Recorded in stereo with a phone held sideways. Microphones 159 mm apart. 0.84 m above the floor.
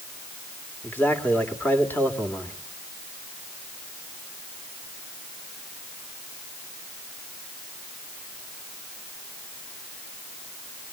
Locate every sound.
0.8 s a man speaking: 10° left (ahead or behind), 2.0 m